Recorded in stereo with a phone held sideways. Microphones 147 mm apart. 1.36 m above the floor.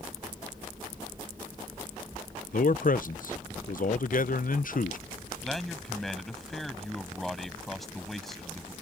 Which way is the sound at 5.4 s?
Centre (ahead or behind).